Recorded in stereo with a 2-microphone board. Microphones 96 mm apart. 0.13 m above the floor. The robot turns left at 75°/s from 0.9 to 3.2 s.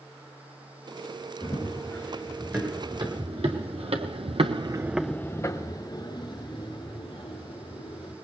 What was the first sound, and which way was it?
Running footsteps, 65° left (ahead or behind).